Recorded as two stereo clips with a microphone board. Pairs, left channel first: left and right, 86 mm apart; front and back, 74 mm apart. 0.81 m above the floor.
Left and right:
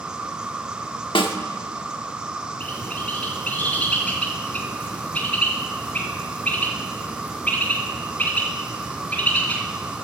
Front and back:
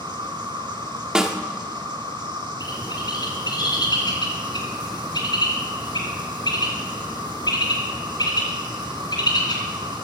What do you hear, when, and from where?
0.0 s an insect: 170° right, 1.2 m
1.1 s a snare drum: 100° left, 1.1 m
2.6 s a bird: 15° left, 3 m